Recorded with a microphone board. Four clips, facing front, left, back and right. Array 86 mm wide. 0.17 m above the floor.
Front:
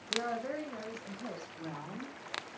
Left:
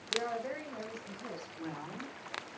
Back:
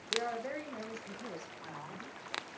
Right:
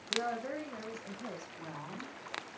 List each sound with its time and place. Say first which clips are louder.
0.1 s a woman speaking: even, front 1 dB; 30° right, 8 m; by 1.5 s 35° right, 9 m
1.6 s a woman speaking: left 2 dB, front 4 dB; 35° left, 7 m